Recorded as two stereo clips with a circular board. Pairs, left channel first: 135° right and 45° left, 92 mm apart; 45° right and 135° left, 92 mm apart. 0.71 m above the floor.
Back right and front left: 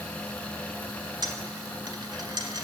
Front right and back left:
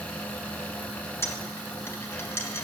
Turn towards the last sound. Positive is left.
turn(degrees=15)